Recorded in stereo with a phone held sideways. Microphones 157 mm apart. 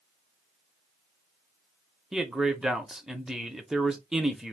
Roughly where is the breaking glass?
No breaking glass in this recording.